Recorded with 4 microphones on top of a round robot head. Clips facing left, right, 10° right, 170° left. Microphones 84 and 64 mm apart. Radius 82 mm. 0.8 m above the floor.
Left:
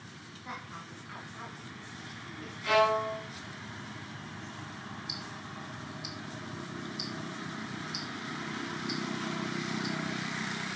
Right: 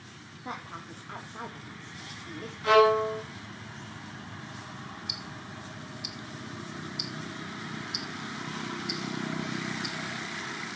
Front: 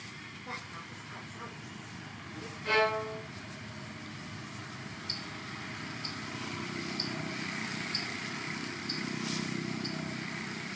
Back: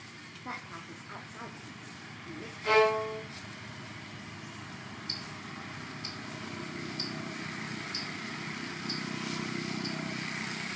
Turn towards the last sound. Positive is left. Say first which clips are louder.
# even, front 1 dB
turn(degrees=-105)